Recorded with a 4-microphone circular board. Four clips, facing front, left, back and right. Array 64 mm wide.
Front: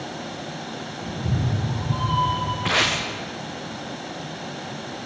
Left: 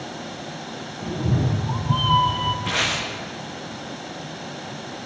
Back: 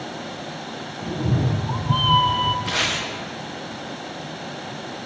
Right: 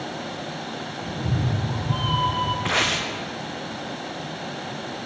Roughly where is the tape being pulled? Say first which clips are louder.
Right 2 dB, front 2 dB; ahead right.